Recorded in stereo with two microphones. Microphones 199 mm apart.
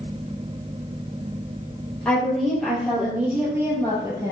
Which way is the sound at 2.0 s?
5° left (ahead or behind).